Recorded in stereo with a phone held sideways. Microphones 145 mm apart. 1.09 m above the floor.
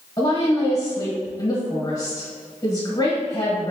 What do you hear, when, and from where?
0.2 s a woman speaking: 30° left (ahead or behind), 1.4 m